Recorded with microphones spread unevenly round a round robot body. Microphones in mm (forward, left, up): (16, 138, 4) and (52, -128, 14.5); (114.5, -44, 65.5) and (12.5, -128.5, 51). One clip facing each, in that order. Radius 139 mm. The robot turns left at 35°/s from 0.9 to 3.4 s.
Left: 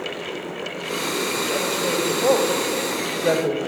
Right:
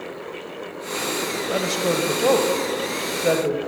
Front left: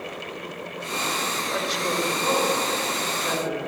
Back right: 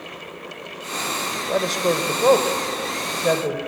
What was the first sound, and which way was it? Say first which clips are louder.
A woman speaking: right 4 dB, back right 9 dB; 105° right.